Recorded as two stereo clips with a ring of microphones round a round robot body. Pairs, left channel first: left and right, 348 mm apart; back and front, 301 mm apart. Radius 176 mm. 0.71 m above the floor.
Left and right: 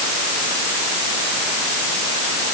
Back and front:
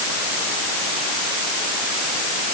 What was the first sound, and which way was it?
Only background noise.